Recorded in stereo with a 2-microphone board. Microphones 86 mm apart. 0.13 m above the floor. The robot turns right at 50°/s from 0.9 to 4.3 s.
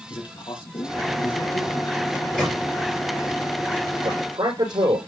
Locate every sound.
0.1 s a man speaking: 80° left, 2.5 m; by 2.0 s 135° left, 2.5 m
2.1 s a microwave: 20° left (ahead or behind), 5.5 m; by 2.6 s centre (ahead or behind), 5.5 m
4.0 s a man speaking: 55° right (ahead or behind), 5.5 m; by 5.0 s 65° right (ahead or behind), 5.5 m